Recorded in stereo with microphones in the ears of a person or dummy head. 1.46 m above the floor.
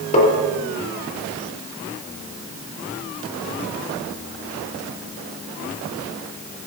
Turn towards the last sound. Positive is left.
turn(degrees=35)  # may be behind; listen again after turning